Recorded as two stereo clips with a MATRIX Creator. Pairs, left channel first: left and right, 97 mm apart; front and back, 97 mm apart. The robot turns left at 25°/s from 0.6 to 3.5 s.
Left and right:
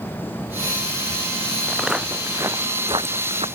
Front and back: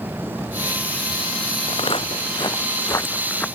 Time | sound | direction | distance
1.7 | footsteps | straight ahead | ?